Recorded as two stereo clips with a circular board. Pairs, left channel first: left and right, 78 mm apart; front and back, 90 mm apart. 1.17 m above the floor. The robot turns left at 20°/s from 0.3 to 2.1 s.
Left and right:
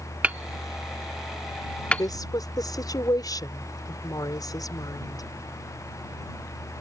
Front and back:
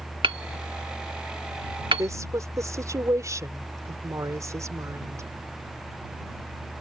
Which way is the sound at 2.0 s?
130° left.